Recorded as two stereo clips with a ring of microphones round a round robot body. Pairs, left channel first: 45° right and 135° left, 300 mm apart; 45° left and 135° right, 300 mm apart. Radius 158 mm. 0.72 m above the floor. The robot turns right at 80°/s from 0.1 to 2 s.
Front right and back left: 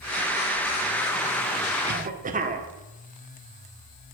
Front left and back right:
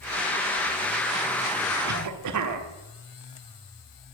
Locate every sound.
1.9 s a cough: 175° right, 1.3 m; by 2.7 s 160° right, 1.3 m